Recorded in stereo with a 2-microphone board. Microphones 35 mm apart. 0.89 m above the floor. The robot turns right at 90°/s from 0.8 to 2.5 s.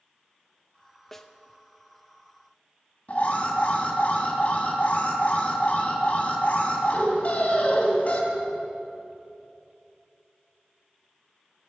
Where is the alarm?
40° left (ahead or behind), 2.5 m.